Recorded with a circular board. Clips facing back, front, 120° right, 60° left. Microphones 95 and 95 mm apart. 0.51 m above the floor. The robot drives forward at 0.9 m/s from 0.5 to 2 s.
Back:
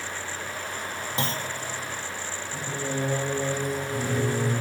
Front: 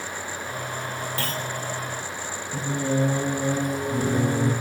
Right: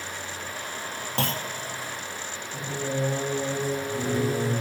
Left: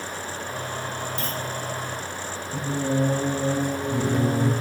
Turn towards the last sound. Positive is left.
turn(degrees=40)